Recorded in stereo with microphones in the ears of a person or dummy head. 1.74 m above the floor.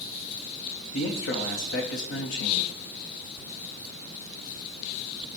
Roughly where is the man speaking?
Left.